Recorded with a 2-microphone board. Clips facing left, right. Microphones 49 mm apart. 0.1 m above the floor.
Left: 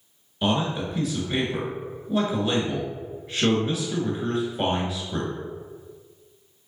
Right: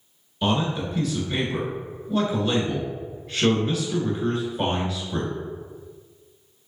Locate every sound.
0.4 s a man speaking: 10° left (ahead or behind), 1.1 m